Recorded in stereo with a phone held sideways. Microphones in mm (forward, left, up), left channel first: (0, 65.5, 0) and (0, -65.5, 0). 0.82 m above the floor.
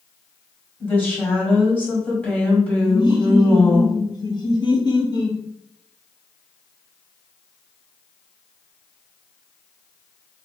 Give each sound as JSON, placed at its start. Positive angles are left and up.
{"t": 0.8, "sound": "a woman speaking", "side_deg": 15, "distance_m": 1.7}
{"t": 2.9, "sound": "laughter", "side_deg": 35, "distance_m": 1.0}